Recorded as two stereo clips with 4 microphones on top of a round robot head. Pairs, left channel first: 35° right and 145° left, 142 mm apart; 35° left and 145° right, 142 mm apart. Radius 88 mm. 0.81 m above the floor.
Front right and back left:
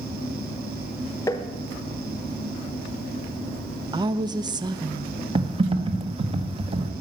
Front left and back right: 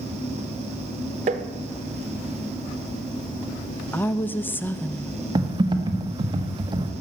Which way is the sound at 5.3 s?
170° left.